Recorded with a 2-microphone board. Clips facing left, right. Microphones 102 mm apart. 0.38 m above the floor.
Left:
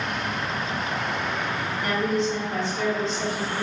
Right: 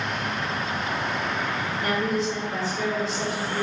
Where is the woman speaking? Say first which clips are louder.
Left 1 dB; centre (ahead or behind), 0.9 m.